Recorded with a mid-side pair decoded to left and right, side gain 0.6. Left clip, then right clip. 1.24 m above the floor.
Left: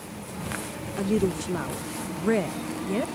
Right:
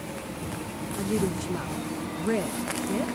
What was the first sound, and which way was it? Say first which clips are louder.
A woman speaking: left 3 dB; 20° left.